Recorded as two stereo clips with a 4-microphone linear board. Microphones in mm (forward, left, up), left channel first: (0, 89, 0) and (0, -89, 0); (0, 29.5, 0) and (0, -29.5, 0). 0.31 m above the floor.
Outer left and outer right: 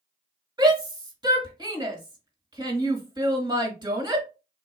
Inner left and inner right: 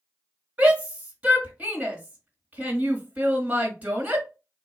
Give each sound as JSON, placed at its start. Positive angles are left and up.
{"t": 0.6, "sound": "a shout", "side_deg": -25, "distance_m": 1.5}